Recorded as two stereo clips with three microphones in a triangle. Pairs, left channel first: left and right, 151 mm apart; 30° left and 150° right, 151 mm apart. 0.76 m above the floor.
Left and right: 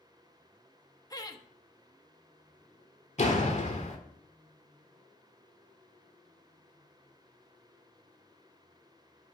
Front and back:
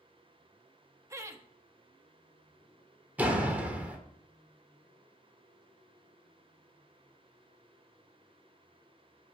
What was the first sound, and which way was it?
Laughter, 145° left.